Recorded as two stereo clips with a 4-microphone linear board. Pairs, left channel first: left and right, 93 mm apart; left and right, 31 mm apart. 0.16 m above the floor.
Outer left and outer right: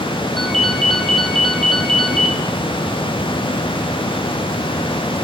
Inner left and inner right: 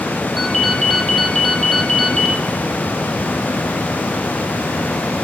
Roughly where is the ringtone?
Centre.